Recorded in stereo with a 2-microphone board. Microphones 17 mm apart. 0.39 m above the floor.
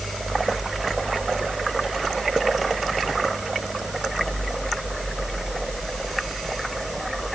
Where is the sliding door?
No sliding door in this recording.